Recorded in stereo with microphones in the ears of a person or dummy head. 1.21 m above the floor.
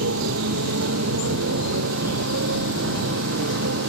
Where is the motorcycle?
75° right (ahead or behind); by 3.9 s 70° right (ahead or behind).